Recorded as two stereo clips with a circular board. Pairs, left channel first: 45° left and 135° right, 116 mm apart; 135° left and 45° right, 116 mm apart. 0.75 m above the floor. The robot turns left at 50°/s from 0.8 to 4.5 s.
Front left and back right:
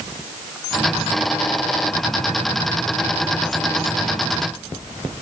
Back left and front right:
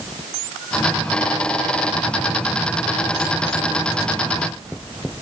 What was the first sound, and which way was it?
Only background noise.